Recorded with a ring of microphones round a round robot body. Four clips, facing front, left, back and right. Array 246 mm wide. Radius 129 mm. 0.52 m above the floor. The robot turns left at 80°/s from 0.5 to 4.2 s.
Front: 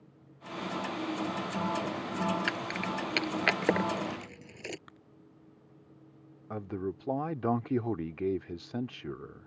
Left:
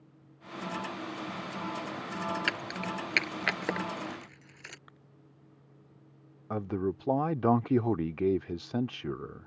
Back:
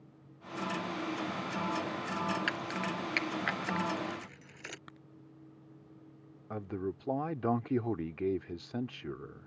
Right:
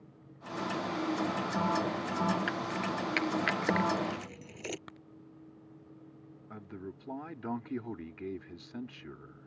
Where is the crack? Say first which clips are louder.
Right 7 dB, back 2 dB; 95° right.